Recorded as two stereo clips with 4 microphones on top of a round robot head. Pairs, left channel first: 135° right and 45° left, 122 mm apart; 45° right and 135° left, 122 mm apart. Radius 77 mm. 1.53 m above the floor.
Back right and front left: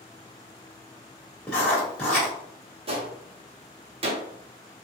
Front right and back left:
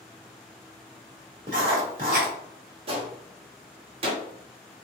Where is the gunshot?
90° left, 0.9 m.